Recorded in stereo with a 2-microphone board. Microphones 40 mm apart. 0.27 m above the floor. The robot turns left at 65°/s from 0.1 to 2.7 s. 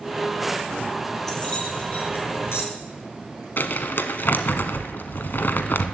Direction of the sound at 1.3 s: 10° left (ahead or behind).